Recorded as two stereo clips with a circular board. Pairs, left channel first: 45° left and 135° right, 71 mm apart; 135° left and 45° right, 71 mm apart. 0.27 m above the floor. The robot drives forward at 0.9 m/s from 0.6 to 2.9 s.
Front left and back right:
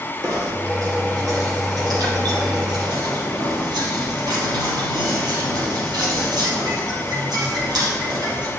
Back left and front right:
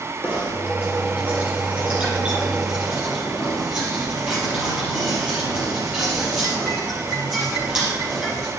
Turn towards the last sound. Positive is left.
turn(degrees=-125)